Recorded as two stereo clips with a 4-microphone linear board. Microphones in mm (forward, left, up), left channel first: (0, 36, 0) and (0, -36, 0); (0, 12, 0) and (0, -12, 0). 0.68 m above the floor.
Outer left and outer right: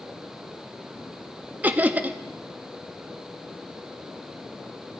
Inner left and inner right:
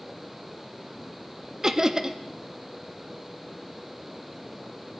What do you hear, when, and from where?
1.6 s laughter: 25° right (ahead or behind), 0.5 m